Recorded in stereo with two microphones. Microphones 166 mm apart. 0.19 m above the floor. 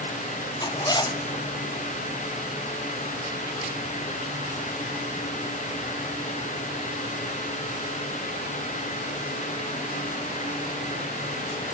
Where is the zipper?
25° left (ahead or behind), 1.0 m.